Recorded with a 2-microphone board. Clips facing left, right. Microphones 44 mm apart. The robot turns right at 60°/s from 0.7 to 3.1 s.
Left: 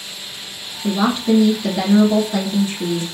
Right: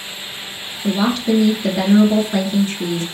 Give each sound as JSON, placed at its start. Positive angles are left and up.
{"t": 0.8, "sound": "a woman speaking", "azimuth_deg": 140, "distance_m": 1.6}